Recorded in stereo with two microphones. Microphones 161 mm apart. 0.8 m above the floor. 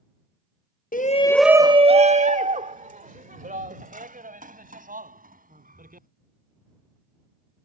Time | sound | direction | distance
0.9 | a shout | 60° left (ahead or behind) | ?